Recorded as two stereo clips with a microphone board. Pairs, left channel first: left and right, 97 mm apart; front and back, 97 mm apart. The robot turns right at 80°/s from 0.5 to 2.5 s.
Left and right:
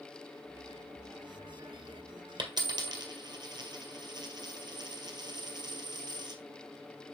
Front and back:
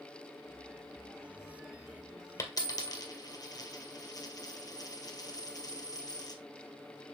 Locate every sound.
2.4 s a dropped coin: 55° right, 1.8 m; by 6.4 s 45° right, 1.8 m